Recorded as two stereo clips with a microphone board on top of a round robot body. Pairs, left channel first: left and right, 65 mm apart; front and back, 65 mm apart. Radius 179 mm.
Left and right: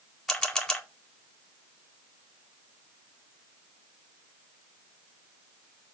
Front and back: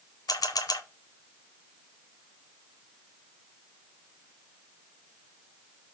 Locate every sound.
0.3 s a camera shutter: 10° left, 1.9 m